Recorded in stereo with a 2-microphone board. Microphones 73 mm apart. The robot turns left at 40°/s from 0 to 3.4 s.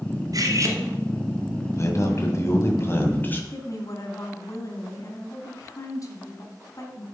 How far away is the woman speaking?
About 2 m.